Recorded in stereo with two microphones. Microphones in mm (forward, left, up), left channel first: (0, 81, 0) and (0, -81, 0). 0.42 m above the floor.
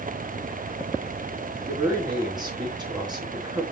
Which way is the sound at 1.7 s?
25° right (ahead or behind).